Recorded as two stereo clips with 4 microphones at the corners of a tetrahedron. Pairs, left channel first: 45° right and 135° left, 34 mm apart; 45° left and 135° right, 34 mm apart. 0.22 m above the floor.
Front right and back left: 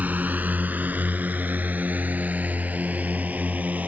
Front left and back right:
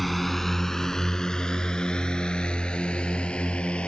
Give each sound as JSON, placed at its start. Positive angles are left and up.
{"t": 0.0, "sound": "a drone", "azimuth_deg": 135}